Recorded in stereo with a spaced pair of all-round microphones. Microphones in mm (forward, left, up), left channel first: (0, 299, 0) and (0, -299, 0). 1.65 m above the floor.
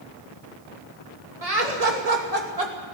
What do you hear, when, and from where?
1.4 s laughter: 75° right (ahead or behind), 2.5 m; by 2.9 s 80° right, 3 m